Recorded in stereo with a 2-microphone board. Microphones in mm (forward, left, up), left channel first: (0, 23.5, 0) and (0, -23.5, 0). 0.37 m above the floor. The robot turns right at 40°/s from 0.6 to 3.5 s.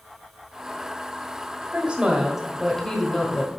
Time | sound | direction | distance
1.7 | a woman speaking | 35° right | 1.4 m